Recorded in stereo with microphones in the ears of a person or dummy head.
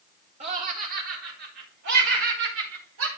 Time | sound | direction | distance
0.4 | laughter | 40° right (ahead or behind) | 1.9 m